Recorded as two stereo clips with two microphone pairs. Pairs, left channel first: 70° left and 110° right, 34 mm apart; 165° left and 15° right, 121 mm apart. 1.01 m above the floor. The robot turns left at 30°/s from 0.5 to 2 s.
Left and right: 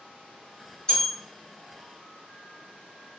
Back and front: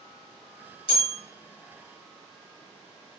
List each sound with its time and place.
0.9 s a bell: 135° left, 1.4 m; by 1.1 s 125° left, 1.4 m